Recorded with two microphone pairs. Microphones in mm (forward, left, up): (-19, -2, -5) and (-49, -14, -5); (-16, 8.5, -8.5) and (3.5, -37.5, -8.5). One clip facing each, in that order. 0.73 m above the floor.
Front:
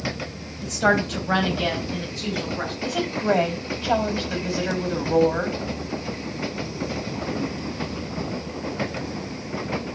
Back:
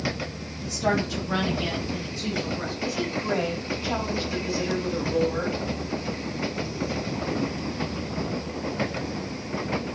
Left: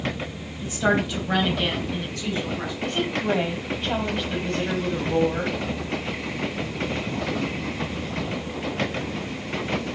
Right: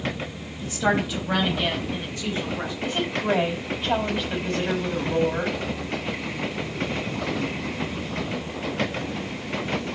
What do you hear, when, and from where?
0.6 s a woman speaking: 25° left, 3.5 m; by 2.7 s 5° right, 4.5 m
2.8 s a woman speaking: 15° left, 5.5 m